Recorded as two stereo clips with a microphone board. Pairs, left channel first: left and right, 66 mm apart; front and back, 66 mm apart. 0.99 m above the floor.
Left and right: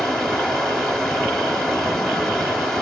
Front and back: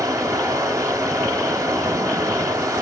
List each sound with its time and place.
0.0 s running water: 170° left, 1.2 m